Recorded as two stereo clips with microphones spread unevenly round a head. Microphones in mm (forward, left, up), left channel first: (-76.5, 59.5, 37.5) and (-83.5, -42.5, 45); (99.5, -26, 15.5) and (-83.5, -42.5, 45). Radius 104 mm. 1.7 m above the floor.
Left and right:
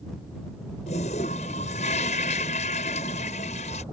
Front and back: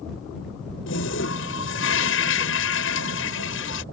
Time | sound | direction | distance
0.9 | a toilet flushing | 40° left | ?